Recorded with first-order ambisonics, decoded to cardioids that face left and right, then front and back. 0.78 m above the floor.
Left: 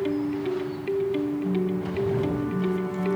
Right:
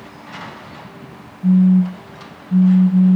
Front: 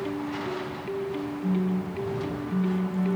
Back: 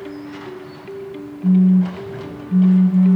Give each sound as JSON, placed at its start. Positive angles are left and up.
{"t": 1.4, "sound": "a phone buzzing", "azimuth_deg": -125, "distance_m": 0.8}